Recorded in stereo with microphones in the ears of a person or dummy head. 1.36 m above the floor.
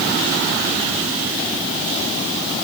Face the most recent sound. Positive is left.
No sound to turn to.